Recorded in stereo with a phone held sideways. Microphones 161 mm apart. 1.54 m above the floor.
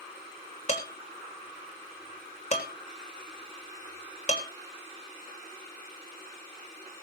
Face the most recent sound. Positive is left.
turn(degrees=45)  # may be behind; listen again after turning